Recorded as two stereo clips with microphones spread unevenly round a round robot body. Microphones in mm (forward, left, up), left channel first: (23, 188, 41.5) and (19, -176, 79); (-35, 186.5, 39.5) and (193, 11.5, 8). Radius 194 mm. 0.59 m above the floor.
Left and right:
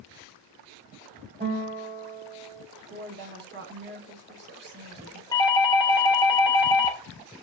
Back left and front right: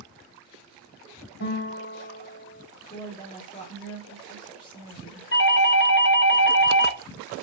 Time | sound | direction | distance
1.4 | a guitar | 165° right | 2.5 m
2.9 | a woman speaking | 140° right | 1.4 m
5.3 | a doorbell | 150° left | 1.3 m